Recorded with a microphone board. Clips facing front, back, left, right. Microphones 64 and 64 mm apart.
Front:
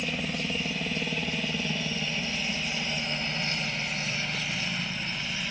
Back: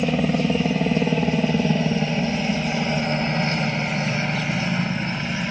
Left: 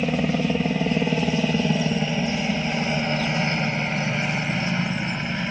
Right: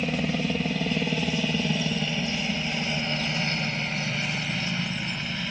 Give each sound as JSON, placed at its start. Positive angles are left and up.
{"t": 0.0, "sound": "a helicopter", "azimuth_deg": 155}